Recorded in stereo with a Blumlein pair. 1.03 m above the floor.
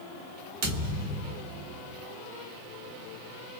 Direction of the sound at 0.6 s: 55° right.